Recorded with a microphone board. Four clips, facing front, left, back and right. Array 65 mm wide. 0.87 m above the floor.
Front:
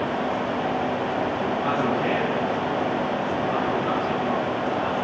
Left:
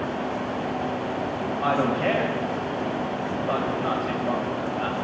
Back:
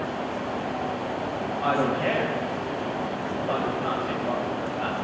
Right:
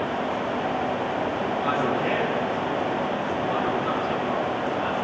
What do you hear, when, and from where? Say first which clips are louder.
1.6 s a man speaking: left 3 dB, back 2 dB; 115° left, 5.5 m